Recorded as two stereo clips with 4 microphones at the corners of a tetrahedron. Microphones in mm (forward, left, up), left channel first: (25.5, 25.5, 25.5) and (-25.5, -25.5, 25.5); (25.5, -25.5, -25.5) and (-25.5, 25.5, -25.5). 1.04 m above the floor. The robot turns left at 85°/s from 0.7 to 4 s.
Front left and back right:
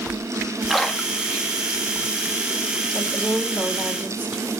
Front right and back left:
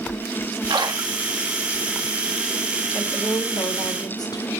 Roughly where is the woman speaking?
Ahead.